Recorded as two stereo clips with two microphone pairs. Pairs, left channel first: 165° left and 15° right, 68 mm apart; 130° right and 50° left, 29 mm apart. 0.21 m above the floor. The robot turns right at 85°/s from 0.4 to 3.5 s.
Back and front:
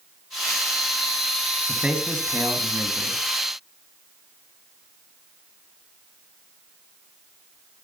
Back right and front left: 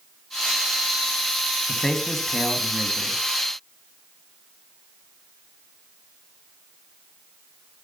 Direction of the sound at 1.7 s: 90° right.